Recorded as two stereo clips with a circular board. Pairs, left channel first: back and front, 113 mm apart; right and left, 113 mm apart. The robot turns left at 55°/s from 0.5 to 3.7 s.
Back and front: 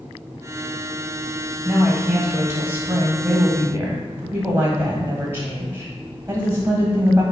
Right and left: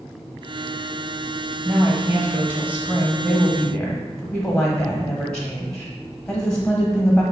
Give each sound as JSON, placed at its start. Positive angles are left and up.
{"t": 1.6, "sound": "a woman speaking", "azimuth_deg": 90, "distance_m": 1.0}